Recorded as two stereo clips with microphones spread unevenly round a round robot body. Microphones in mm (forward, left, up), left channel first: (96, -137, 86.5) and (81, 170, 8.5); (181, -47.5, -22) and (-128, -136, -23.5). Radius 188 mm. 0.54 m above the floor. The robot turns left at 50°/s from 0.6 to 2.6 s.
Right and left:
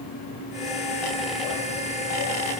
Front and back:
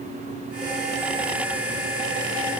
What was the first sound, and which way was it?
Only background noise.